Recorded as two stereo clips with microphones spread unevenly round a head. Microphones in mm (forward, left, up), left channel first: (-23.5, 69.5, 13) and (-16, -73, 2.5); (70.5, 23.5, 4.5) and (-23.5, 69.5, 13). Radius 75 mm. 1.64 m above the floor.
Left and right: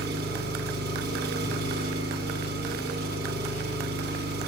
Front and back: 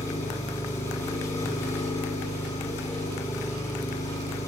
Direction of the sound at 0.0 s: 100° right.